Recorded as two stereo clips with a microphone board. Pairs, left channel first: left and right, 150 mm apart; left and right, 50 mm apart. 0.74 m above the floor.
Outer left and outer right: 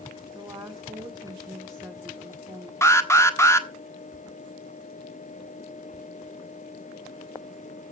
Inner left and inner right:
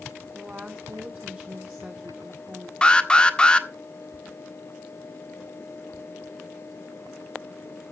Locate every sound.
0.3 s a woman speaking: 30° right (ahead or behind), 1.7 m
2.8 s an alarm: 15° left (ahead or behind), 1.3 m